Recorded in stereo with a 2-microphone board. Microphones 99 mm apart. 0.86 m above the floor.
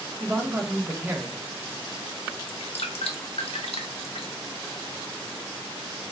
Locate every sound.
0.2 s a man speaking: 25° right (ahead or behind), 0.7 m
2.5 s dripping: 80° left, 0.5 m